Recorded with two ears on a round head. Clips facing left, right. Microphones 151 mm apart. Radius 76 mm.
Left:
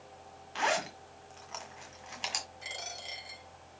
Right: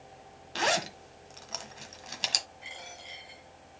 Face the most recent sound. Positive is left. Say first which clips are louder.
# left 2 dB
turn(degrees=50)  # may be behind; listen again after turning